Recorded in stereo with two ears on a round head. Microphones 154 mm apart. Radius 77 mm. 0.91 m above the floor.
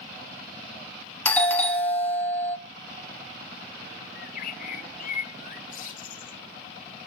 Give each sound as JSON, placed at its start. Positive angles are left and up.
{"t": 1.2, "sound": "a doorbell", "side_deg": 10, "distance_m": 1.0}
{"t": 4.2, "sound": "a bird", "side_deg": 50, "distance_m": 1.8}